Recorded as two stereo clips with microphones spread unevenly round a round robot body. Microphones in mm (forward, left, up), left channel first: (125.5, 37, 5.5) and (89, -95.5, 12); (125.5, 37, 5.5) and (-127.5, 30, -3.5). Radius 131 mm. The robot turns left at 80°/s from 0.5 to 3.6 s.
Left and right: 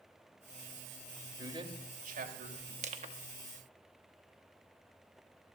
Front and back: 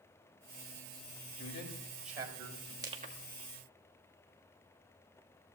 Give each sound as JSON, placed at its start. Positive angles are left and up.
{"t": 1.4, "sound": "a man speaking", "azimuth_deg": -35, "distance_m": 3.5}
{"t": 2.8, "sound": "crushing", "azimuth_deg": -105, "distance_m": 1.4}